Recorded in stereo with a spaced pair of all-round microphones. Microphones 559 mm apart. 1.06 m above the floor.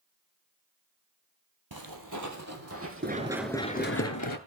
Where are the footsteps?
40° right (ahead or behind), 1.8 m; by 4.0 s 10° right (ahead or behind), 3 m.